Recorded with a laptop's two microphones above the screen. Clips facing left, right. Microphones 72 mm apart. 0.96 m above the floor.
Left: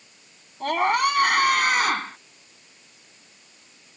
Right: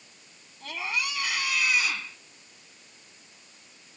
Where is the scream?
55° left (ahead or behind); by 2.2 s 50° left (ahead or behind).